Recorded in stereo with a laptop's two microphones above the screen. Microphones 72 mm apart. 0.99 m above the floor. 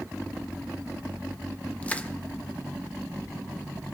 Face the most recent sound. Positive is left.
turn(degrees=20)  # may be behind; listen again after turning